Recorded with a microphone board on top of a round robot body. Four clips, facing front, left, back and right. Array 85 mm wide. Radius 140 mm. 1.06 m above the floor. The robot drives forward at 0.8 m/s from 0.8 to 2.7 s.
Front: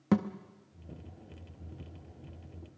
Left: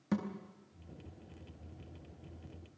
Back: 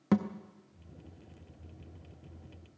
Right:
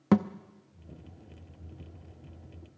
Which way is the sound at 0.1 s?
90° right.